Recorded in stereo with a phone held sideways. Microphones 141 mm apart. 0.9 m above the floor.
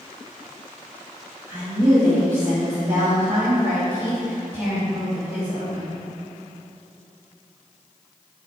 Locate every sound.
1.5 s a woman speaking: 30° right (ahead or behind), 2 m